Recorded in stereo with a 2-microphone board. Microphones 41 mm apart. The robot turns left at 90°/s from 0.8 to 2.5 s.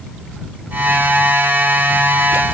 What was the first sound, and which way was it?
Only background noise.